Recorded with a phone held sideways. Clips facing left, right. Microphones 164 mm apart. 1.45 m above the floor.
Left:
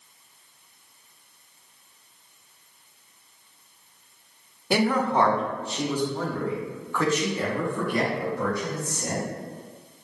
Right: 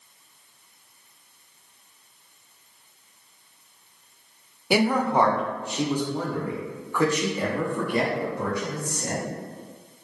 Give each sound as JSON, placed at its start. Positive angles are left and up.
{"t": 4.7, "sound": "a man speaking", "side_deg": -10, "distance_m": 0.6}